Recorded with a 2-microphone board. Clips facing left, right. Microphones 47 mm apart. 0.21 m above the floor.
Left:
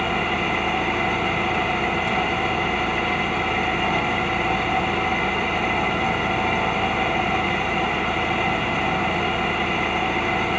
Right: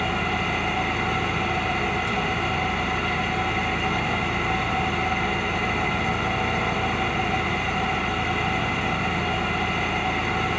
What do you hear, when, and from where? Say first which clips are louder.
0.0 s an engine running: left 2 dB; 45° left (ahead or behind), 3 m